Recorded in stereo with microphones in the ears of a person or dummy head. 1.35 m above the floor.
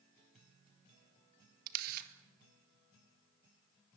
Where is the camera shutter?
50° right (ahead or behind), 1.9 m.